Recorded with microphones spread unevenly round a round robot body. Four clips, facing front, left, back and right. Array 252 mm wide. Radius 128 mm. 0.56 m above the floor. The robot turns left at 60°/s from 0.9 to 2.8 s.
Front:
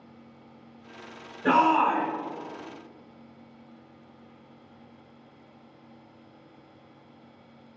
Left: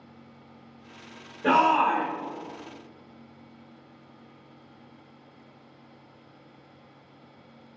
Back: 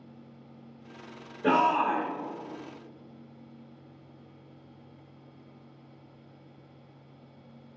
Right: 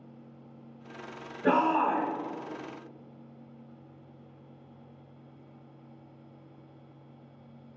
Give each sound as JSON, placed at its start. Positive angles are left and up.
{"t": 1.4, "sound": "a shout", "azimuth_deg": 160, "distance_m": 1.7}